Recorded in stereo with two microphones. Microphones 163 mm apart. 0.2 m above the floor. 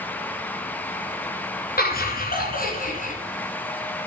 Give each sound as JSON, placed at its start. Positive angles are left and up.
{"t": 1.8, "sound": "laughter", "side_deg": 65, "distance_m": 2.5}